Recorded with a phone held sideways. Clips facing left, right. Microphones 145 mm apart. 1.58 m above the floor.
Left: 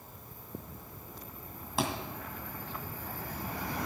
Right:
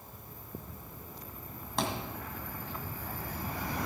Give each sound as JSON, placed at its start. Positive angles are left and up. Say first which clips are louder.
{"t": 1.8, "sound": "a thud", "louder": "left 1 dB", "side_deg": 5, "distance_m": 2.0}